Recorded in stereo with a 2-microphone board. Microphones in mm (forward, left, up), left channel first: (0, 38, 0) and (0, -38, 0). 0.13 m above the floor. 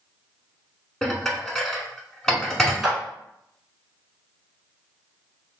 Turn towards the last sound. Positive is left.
turn(degrees=-5)  # may be behind; listen again after turning